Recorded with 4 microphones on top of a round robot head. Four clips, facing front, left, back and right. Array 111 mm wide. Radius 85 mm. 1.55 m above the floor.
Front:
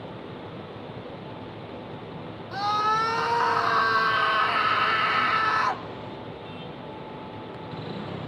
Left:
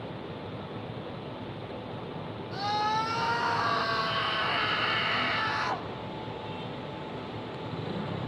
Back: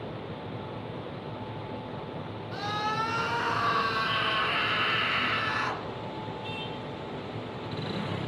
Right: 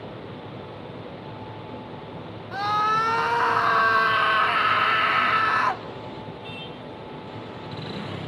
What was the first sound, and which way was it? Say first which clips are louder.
A scream: right 6 dB, front 7 dB; 60° right.